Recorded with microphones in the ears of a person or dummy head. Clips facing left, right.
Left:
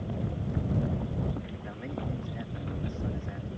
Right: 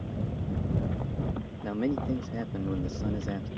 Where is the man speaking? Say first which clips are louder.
Right 12 dB; 75° right (ahead or behind).